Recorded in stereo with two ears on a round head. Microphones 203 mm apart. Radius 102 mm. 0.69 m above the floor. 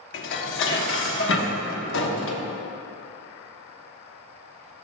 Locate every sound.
0.1 s dishes clattering: 55° left (ahead or behind), 0.9 m